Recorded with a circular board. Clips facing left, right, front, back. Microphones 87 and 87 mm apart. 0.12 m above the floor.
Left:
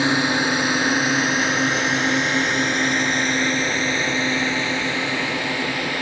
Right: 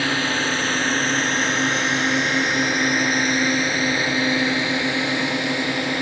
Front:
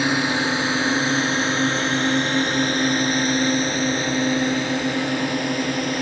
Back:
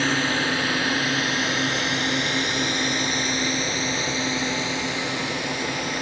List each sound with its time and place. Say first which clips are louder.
0.0 s a drone: left 3 dB, front 2 dB; 50° left; by 6.0 s 25° right